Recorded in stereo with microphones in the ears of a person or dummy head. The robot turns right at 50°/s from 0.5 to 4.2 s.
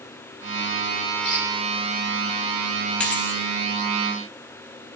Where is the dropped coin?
5° left (ahead or behind), 1.8 m; by 3.4 s 15° left (ahead or behind), 1.8 m.